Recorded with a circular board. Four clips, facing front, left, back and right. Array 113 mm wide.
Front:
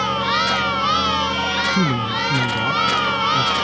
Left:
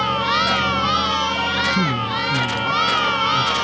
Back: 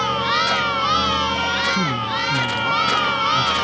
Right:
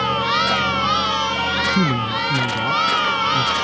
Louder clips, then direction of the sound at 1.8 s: Right 1 dB, front 2 dB; 40° right.